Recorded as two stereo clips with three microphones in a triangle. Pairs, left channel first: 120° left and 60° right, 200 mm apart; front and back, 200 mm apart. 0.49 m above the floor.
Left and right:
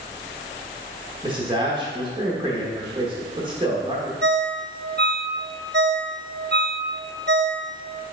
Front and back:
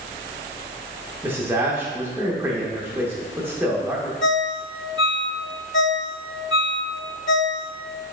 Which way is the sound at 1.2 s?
105° right.